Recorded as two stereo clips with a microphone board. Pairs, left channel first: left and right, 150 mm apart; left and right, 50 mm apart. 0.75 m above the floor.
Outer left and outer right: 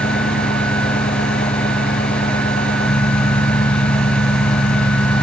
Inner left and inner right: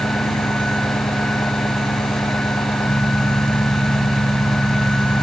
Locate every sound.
0.0 s an engine running: 85° left